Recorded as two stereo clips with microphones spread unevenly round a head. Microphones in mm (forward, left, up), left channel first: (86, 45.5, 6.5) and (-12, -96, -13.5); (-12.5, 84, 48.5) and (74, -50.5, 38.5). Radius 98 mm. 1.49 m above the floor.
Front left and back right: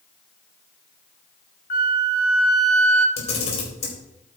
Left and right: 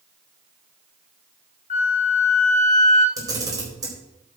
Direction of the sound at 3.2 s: 10° left.